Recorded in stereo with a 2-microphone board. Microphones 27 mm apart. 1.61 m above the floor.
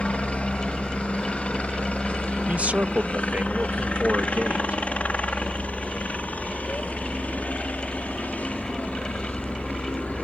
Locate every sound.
0.0 s a helicopter: 50° left (ahead or behind); by 10.2 s 70° left (ahead or behind)
2.5 s a man speaking: 65° right (ahead or behind)